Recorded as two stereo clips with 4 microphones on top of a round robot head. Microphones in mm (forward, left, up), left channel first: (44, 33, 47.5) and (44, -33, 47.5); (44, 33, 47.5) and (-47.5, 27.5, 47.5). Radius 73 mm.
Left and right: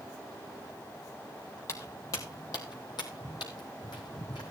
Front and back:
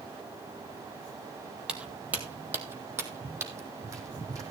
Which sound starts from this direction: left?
Footsteps, at 1.7 s.